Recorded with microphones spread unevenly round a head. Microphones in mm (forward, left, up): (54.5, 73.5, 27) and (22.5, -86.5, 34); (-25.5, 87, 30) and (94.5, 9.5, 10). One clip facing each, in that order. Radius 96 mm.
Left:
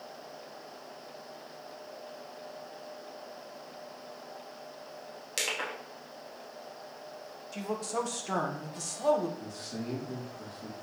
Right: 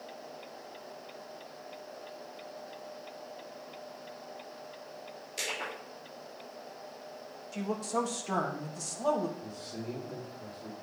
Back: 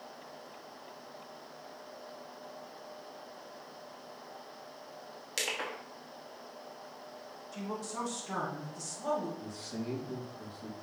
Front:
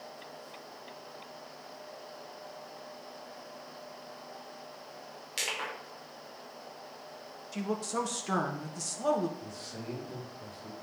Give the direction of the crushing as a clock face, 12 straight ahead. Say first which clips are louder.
Left 2 dB, back 1 dB; 8 o'clock.